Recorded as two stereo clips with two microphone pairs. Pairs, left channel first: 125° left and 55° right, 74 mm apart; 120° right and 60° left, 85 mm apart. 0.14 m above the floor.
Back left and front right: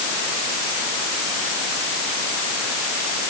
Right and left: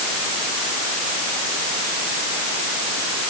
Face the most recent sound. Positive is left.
No sound to turn to.